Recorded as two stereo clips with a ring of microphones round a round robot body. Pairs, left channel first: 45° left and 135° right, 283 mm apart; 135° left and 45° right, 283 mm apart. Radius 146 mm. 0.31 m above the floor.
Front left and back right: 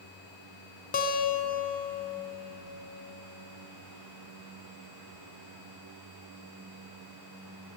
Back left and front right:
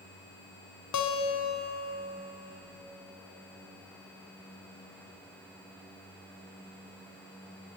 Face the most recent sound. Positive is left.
turn(degrees=105)